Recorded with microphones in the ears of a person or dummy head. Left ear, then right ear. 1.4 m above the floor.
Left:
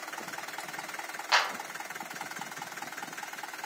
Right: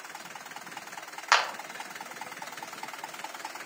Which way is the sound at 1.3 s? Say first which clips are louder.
Right 2 dB; 55° right (ahead or behind).